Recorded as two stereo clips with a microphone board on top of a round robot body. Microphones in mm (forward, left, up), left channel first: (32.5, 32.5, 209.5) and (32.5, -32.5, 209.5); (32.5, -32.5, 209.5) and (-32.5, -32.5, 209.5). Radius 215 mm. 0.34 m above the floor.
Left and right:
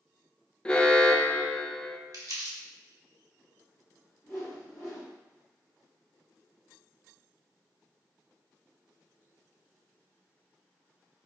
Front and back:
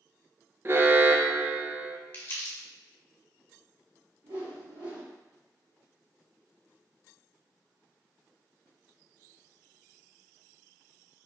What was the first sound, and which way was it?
An alarm, 155° left.